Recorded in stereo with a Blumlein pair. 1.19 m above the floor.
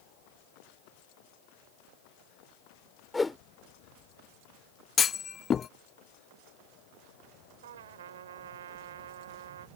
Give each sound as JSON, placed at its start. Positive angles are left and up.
{"t": 3.1, "sound": "a whoosh", "azimuth_deg": 10}
{"t": 5.0, "sound": "a clunk", "azimuth_deg": 20}
{"t": 7.6, "sound": "a trumpet", "azimuth_deg": -60}